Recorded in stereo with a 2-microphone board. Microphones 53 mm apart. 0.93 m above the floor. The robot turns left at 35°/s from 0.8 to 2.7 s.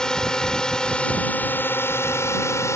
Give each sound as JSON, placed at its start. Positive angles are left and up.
{"t": 0.0, "sound": "a drone", "side_deg": 15}